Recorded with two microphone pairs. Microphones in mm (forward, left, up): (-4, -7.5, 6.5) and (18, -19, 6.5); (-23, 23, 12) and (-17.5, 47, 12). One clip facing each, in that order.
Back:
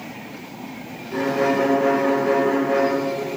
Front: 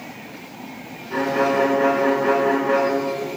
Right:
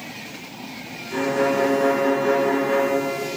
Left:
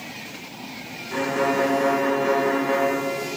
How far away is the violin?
About 3 m.